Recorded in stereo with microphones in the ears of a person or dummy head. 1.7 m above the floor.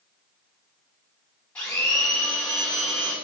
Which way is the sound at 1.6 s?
10° left (ahead or behind).